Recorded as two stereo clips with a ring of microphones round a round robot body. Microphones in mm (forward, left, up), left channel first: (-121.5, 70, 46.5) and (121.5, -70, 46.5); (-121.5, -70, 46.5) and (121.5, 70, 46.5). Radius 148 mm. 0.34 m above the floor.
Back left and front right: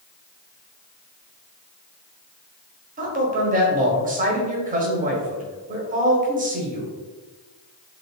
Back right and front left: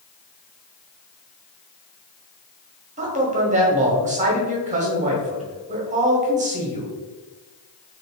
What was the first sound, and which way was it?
A man speaking, 5° right.